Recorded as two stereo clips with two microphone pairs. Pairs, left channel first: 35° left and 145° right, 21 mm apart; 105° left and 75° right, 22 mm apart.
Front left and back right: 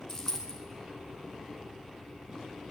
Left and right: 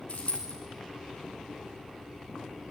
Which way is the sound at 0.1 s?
105° left.